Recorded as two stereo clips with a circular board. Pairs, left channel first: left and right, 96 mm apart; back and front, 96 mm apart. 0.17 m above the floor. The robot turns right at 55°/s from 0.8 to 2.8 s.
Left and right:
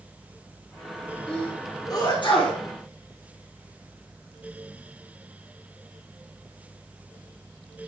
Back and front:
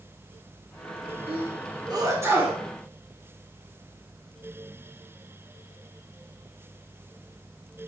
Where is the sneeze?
10° left, 3 m; by 2.6 s 80° left, 3 m.